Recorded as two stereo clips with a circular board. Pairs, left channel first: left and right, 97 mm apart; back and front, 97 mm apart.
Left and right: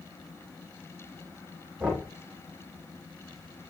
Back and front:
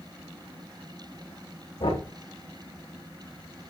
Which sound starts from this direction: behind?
Knocking, at 1.8 s.